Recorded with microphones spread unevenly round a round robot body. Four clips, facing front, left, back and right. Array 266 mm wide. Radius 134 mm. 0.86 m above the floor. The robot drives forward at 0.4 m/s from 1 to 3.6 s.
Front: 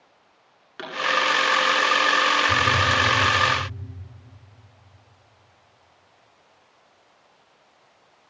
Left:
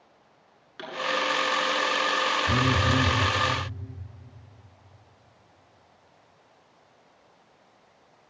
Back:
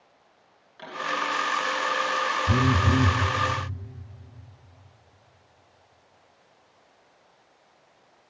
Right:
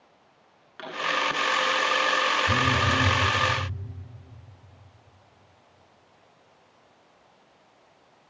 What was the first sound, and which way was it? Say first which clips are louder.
A pop: even, front 6 dB; 10° left.